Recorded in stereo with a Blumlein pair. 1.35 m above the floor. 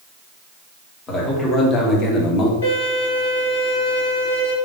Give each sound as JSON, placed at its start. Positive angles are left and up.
{"t": 1.1, "sound": "a man speaking", "azimuth_deg": 20, "distance_m": 1.6}
{"t": 2.6, "sound": "a violin", "azimuth_deg": 65, "distance_m": 1.7}